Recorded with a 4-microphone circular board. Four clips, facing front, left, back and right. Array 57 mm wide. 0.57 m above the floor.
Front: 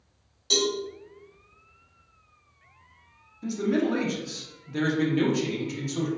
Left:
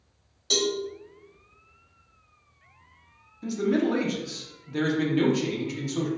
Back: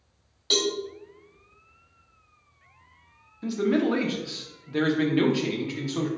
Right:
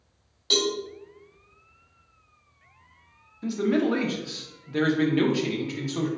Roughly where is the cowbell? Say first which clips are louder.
Right 1 dB, even; behind right.